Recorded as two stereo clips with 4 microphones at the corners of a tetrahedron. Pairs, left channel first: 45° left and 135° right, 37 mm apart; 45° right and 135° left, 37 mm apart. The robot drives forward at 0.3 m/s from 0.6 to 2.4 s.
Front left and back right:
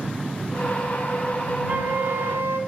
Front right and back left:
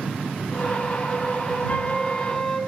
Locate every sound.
1.7 s a flute: 95° right, 0.6 m; by 2.6 s 115° right, 0.6 m